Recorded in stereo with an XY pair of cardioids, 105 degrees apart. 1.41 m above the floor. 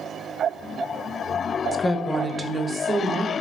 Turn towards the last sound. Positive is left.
turn(degrees=-50)